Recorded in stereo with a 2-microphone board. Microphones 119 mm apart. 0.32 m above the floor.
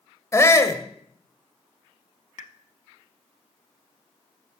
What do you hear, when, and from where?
0.3 s a shout: 25° left (ahead or behind), 1.0 m
2.4 s a pop: 85° left, 0.6 m